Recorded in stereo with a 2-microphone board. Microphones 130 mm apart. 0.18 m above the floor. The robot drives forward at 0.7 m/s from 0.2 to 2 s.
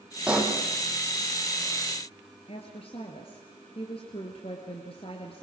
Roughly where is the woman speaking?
Left.